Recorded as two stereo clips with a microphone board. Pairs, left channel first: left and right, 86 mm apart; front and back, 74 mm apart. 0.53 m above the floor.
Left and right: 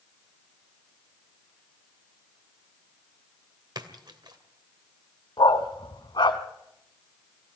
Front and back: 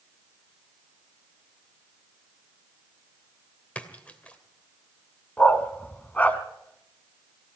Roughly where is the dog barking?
Left.